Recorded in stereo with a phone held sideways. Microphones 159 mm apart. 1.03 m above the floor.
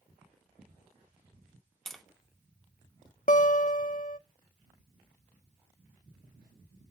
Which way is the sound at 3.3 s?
55° left (ahead or behind).